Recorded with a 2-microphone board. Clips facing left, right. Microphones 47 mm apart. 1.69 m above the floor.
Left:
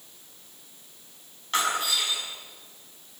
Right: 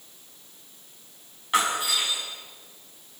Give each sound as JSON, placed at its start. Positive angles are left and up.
{"t": 1.5, "sound": "breaking glass", "side_deg": -15, "distance_m": 6.0}